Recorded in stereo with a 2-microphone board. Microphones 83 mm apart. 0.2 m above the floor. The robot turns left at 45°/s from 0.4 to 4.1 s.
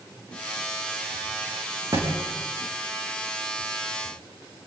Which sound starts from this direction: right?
A thud, at 1.9 s.